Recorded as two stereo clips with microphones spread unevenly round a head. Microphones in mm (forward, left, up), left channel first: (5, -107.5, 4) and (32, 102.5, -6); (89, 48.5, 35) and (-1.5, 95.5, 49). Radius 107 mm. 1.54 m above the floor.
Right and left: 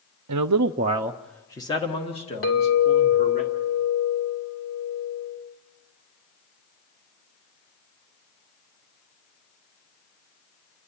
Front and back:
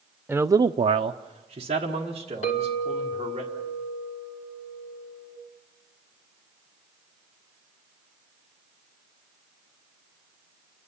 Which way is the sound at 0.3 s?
75° left.